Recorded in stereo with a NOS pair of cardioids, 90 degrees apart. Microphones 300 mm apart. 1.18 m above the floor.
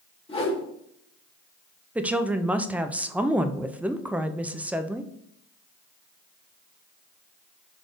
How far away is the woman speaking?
About 0.5 m.